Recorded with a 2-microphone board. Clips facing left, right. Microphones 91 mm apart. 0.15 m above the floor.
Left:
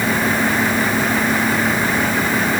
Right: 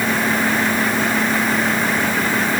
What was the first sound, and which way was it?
Only background noise.